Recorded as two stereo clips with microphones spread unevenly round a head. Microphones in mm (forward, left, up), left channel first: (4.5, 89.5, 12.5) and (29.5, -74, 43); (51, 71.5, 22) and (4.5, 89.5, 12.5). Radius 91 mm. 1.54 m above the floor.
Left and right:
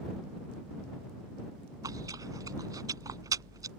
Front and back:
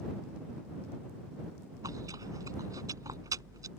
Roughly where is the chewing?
Behind right.